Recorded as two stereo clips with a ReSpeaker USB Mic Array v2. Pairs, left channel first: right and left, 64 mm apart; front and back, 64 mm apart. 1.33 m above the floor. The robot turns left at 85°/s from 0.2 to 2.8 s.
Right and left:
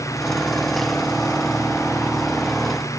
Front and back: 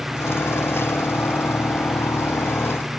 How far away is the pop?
I don't hear a pop.